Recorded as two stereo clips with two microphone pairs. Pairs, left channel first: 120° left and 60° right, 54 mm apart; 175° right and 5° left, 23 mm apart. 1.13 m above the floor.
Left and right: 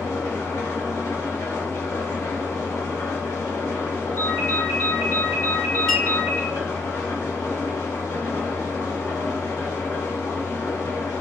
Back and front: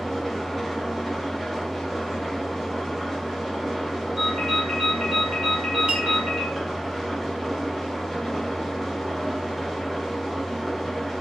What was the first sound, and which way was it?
An engine running, 100° left.